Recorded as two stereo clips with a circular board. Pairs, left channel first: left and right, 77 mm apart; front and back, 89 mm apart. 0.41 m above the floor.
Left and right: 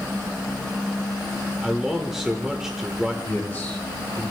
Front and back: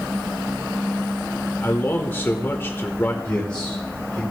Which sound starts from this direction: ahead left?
A man speaking, at 3.2 s.